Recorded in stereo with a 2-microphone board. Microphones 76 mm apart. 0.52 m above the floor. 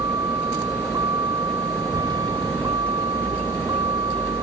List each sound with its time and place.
0.0 s a vehicle: 55° right (ahead or behind); by 4.4 s 85° right